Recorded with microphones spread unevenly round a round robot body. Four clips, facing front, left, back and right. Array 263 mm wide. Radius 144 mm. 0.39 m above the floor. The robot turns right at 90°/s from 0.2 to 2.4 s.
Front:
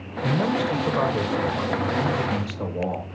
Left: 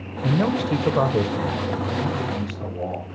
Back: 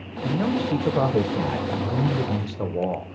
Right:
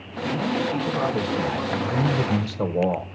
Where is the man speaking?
55° left, 1.3 m; by 3.1 s 105° right, 1.3 m.